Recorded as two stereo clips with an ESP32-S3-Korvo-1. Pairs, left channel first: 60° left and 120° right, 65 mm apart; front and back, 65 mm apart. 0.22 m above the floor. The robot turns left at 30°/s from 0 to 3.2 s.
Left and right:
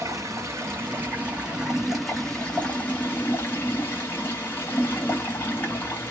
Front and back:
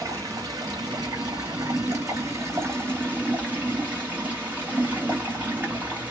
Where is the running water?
150° right, 1.1 m; by 6.1 s 115° left, 1.1 m.